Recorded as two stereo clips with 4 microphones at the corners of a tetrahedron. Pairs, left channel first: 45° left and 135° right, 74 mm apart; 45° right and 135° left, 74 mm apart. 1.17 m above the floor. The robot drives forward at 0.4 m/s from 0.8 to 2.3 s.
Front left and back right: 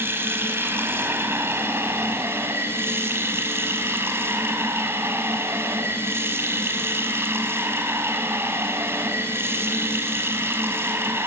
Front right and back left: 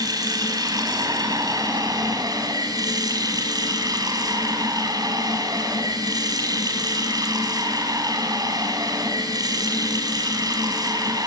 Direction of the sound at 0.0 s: 165° left.